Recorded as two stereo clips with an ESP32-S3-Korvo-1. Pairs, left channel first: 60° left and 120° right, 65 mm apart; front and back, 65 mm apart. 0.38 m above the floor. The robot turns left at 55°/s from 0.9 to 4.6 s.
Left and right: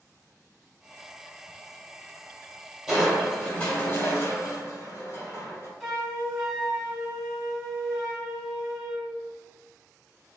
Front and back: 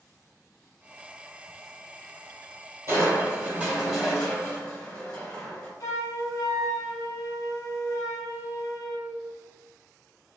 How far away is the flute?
About 0.9 m.